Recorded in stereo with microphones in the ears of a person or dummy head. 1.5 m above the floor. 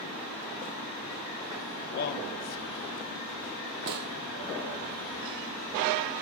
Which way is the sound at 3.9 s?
55° right (ahead or behind).